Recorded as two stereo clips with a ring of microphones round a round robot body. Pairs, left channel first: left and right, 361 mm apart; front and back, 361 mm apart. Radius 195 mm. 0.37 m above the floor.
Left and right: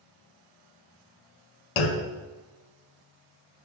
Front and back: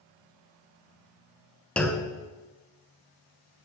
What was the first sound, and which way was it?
A clunk, 90° left.